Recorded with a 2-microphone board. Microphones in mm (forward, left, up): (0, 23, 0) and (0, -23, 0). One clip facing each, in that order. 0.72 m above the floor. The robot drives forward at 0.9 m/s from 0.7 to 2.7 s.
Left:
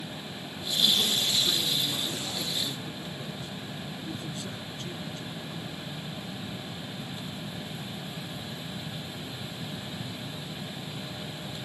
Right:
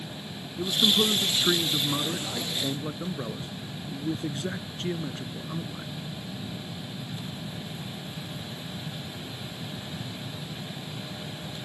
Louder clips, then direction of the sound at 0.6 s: Right 3 dB; 55° right (ahead or behind).